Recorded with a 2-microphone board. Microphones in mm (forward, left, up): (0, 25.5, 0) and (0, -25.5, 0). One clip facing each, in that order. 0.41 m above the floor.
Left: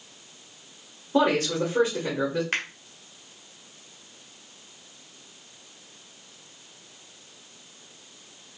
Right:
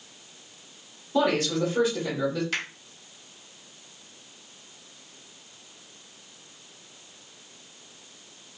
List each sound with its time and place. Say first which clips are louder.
1.1 s a man speaking: left 1 dB; 40° left (ahead or behind), 1.6 m
2.5 s a finger snap: left 2 dB; 45° left (ahead or behind), 1.4 m